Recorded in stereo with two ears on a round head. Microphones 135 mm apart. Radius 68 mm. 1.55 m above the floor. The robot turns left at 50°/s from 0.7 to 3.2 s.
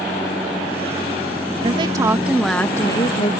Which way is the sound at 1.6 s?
140° right.